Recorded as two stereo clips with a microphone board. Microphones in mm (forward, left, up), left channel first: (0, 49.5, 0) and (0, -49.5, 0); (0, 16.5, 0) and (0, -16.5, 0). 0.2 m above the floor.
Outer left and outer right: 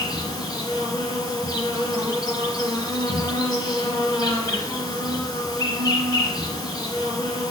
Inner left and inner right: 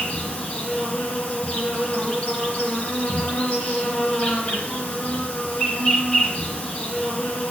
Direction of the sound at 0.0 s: 40° left (ahead or behind).